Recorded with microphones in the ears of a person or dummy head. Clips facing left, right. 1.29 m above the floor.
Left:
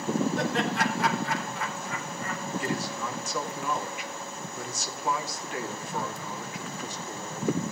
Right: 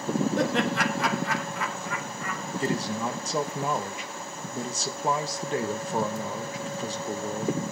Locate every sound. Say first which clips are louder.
0.4 s laughter: right 2 dB; 70° right (ahead or behind), 1.6 m; by 2.4 s 60° right (ahead or behind), 3 m
2.6 s a man speaking: right 8 dB; 30° right (ahead or behind), 1.5 m